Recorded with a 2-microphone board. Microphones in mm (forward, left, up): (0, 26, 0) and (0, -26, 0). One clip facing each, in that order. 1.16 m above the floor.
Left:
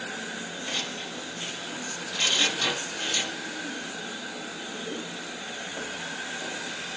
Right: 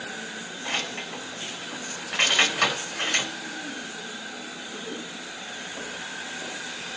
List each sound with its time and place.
0.7 s keys jangling: 60° right (ahead or behind), 4 m